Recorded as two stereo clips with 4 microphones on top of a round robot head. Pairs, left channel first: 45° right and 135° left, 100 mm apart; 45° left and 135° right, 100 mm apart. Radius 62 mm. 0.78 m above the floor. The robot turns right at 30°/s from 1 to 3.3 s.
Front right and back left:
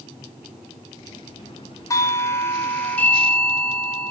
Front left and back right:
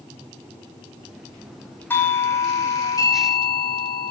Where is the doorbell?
10° right, 1.4 m; by 4.1 s 30° left, 1.4 m.